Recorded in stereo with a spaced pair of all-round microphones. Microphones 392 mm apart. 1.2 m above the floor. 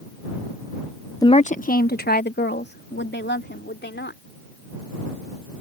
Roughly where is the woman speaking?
Centre.